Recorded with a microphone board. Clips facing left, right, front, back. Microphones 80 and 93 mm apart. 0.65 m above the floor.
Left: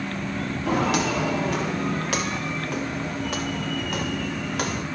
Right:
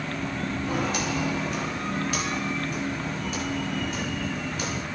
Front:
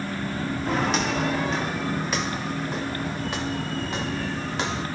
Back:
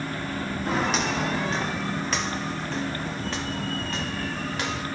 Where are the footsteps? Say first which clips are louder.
Left 7 dB, front 1 dB; 90° left, 7 m; by 4.9 s 65° left, 6 m.